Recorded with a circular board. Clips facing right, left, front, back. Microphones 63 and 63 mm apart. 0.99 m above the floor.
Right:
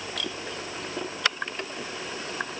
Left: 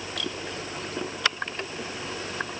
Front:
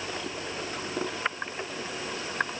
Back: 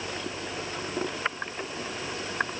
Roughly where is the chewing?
I don't hear chewing.